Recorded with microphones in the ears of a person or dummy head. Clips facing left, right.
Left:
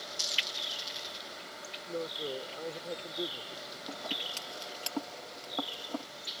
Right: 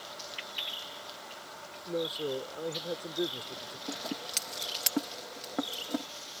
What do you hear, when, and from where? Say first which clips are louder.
1.9 s a man speaking: right 4 dB; 30° right (ahead or behind)
3.9 s scissors: right 4 dB; 30° right (ahead or behind)